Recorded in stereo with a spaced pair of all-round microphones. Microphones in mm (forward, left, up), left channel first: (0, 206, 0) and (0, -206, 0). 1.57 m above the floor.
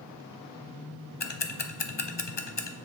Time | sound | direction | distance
1.2 | ticking | 80° left | 1.0 m